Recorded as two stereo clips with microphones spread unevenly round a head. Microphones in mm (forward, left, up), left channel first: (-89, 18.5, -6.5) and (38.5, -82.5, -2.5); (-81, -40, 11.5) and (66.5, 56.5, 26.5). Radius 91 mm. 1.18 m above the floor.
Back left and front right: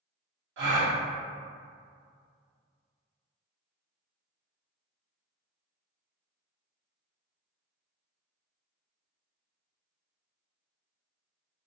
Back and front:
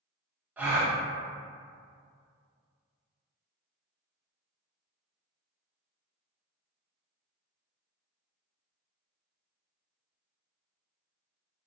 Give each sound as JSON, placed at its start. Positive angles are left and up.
{"t": 0.6, "sound": "a gasp", "azimuth_deg": -50, "distance_m": 0.8}